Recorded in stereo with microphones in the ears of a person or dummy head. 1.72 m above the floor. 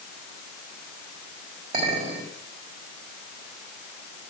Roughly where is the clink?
Right.